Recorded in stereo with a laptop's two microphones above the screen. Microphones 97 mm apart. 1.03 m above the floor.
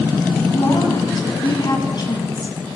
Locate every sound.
0.5 s a woman speaking: 45° left (ahead or behind), 6.5 m